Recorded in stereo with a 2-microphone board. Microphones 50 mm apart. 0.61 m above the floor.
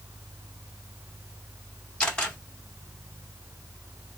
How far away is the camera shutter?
About 1.8 m.